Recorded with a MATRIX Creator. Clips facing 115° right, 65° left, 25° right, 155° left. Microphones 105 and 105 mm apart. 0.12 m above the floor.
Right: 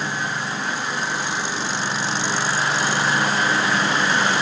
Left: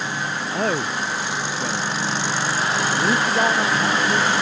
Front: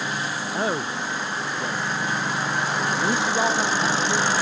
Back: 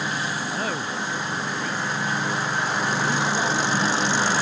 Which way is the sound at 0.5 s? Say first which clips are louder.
Left 3 dB, front 2 dB; 45° left.